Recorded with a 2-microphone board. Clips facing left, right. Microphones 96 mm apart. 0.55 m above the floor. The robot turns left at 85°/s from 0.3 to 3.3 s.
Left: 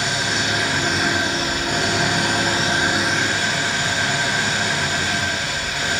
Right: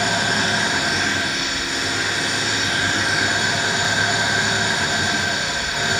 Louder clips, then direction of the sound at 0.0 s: Right 2 dB; 125° right.